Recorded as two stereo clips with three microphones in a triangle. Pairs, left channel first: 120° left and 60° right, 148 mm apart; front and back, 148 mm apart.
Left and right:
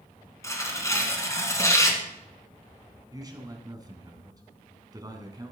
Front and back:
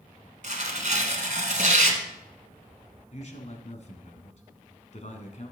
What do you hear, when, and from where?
0.4 s tearing paper: 175° right, 1.5 m
3.1 s a man speaking: 5° right, 1.7 m